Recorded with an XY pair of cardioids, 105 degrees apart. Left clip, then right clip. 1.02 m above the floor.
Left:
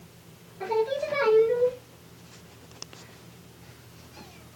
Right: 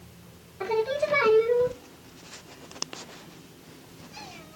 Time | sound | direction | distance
0.6 | singing | 45° right | 1.1 m